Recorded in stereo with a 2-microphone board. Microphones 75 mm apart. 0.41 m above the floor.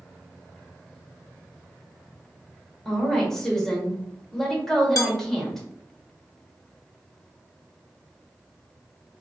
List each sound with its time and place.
2.9 s a woman speaking: 5° left (ahead or behind), 1.1 m
5.0 s dishes clattering: 50° left (ahead or behind), 0.7 m